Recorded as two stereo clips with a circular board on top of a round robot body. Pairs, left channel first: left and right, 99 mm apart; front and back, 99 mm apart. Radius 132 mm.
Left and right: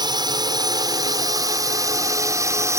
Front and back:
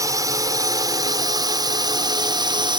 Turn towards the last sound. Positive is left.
turn(degrees=-145)